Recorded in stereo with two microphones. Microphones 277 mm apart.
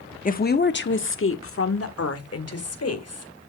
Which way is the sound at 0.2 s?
30° left (ahead or behind).